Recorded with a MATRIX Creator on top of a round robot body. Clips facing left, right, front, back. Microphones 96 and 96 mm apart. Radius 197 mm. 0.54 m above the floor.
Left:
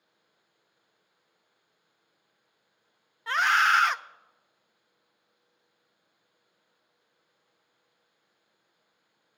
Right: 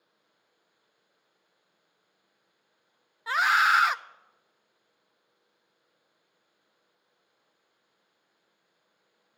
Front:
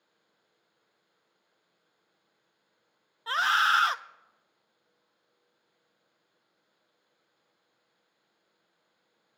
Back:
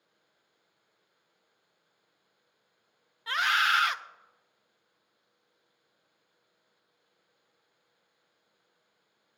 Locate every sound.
3.3 s a scream: 10° right, 0.8 m